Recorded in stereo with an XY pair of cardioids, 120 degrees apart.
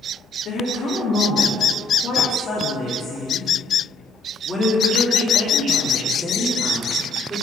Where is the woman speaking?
60° left, 2.5 m; by 7.4 s 15° right, 3 m.